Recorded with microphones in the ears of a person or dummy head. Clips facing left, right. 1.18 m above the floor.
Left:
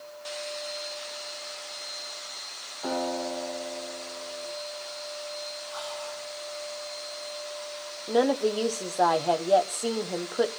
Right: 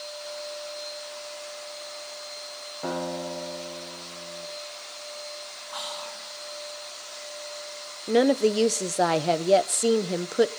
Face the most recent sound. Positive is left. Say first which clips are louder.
# right 3 dB
turn(degrees=-25)  # may be behind; listen again after turning